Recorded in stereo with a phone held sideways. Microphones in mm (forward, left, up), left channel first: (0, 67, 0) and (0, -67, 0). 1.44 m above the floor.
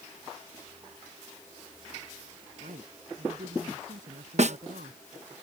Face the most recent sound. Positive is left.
turn(degrees=-60)  # may be behind; listen again after turning